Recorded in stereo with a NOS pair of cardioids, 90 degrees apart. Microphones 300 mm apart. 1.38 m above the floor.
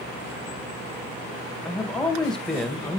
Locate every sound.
1.6 s a man speaking: straight ahead, 2 m